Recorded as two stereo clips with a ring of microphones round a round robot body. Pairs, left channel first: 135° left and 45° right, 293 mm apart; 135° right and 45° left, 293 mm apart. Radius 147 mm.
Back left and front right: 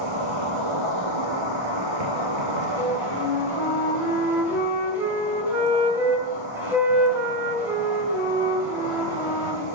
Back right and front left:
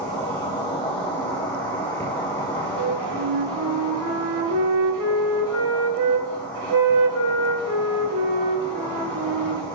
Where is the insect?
50° right, 4 m.